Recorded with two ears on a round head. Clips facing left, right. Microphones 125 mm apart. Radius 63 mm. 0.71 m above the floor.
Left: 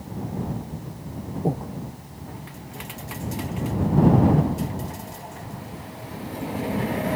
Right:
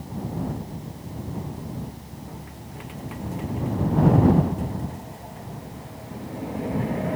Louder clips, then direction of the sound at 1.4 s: Left 9 dB; 80° left.